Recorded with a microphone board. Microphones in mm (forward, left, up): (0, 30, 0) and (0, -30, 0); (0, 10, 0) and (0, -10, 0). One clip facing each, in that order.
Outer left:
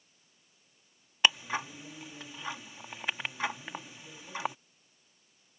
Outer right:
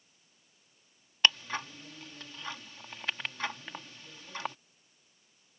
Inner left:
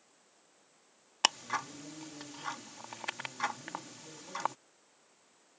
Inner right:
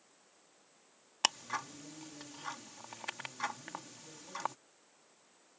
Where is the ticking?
15° left (ahead or behind).